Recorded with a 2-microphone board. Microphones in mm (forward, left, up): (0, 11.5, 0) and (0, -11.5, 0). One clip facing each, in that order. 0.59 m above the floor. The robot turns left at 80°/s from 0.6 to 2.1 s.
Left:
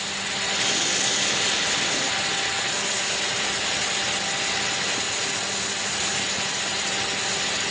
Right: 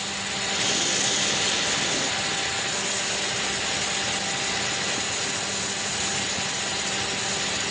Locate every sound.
Only background noise.